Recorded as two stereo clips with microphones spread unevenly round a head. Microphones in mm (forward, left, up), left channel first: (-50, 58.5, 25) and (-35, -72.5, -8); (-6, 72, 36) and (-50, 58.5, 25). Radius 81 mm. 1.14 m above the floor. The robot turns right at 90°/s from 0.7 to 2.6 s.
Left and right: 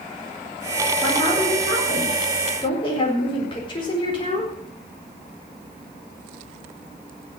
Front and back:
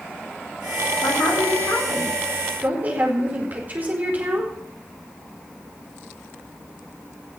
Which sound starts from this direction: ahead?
A woman speaking, at 1.0 s.